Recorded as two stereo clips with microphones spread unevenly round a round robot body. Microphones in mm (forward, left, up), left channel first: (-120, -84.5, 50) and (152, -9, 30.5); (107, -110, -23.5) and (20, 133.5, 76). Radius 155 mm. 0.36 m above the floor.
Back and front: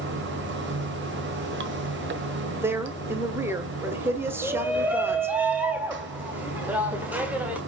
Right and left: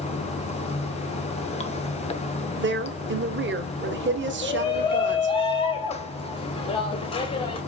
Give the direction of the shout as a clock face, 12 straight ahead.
2 o'clock.